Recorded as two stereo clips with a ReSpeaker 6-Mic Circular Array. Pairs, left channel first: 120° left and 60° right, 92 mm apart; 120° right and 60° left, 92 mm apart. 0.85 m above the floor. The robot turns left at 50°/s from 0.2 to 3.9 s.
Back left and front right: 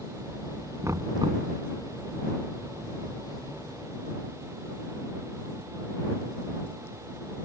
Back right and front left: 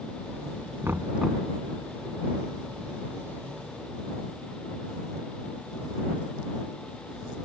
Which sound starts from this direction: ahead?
Knocking, at 0.8 s.